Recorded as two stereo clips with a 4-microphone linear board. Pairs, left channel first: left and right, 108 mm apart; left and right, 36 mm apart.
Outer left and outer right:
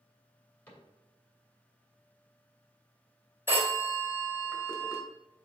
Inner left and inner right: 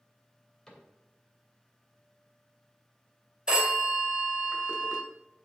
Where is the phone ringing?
20° right (ahead or behind), 1.6 m.